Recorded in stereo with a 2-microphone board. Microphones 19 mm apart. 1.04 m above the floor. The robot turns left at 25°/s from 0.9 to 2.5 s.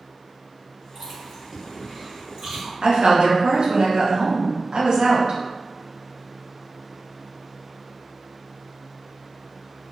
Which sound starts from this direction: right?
A woman speaking, at 2.8 s.